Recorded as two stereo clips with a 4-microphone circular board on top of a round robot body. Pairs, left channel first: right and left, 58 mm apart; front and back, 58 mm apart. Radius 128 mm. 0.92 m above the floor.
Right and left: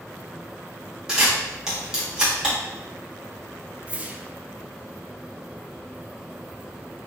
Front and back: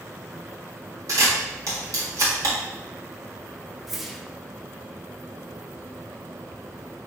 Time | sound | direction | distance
1.1 | a camera shutter | 165° left | 1.5 m
3.9 | a whoosh | 100° left | 0.6 m